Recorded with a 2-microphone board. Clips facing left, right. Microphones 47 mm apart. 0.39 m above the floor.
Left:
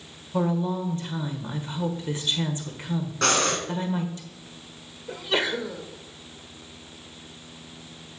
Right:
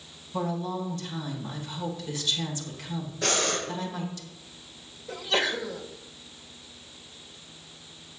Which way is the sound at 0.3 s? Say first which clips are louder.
Left 5 dB; 25° left (ahead or behind).